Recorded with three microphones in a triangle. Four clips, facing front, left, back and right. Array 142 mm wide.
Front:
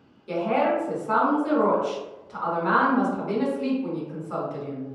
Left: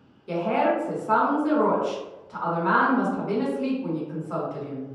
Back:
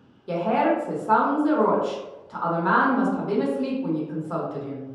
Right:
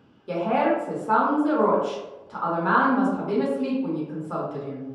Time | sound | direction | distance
0.3 | a woman speaking | 145° right | 0.8 m